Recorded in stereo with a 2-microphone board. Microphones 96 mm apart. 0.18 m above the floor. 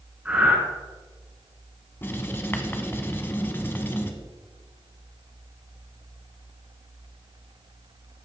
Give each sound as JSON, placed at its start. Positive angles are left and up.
{"t": 0.2, "sound": "breathing", "side_deg": -15, "distance_m": 1.8}
{"t": 2.0, "sound": "writing", "side_deg": 25, "distance_m": 0.7}